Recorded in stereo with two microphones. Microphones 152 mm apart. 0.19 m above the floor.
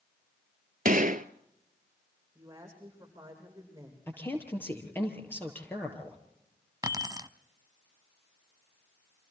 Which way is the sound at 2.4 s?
20° right (ahead or behind).